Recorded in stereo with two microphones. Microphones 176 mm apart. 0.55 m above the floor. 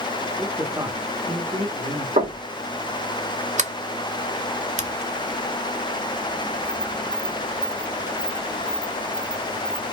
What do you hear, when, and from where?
0.4 s a man speaking: centre (ahead or behind), 1.3 m; by 2.1 s 45° right (ahead or behind), 1.8 m
2.2 s knocking: 45° right (ahead or behind), 1.7 m
3.6 s a sliding door: 45° right (ahead or behind), 0.5 m